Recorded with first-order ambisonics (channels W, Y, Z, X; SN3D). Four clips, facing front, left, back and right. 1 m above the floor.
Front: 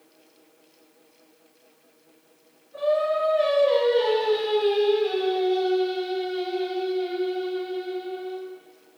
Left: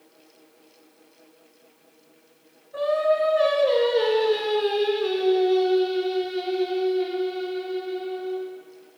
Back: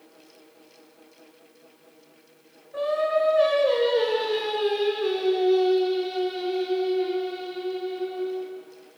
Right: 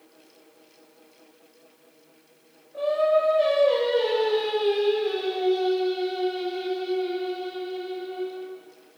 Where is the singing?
125° left, 2 m.